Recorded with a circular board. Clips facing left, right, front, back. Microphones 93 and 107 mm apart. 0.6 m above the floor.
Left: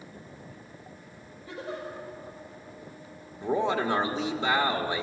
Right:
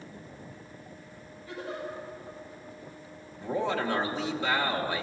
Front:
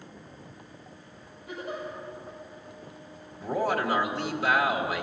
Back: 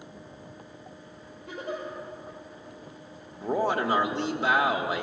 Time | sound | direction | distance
1.5 | a giggle | 160° left | 5.5 m
3.4 | a man speaking | 140° left | 1.2 m